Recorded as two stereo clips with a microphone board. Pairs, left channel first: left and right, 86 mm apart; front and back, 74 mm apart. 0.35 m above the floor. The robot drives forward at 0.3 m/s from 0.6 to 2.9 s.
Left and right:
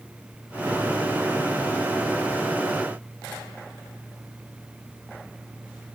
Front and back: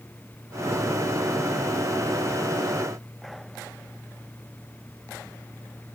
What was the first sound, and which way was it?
Only background noise.